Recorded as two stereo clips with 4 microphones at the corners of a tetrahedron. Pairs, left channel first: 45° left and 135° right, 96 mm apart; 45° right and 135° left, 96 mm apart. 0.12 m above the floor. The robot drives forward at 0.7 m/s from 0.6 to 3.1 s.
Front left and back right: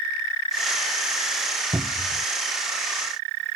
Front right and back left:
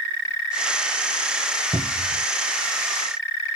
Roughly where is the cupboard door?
Behind.